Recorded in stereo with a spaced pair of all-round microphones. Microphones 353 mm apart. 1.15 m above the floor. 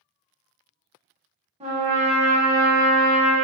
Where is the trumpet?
20° right (ahead or behind), 1.1 m.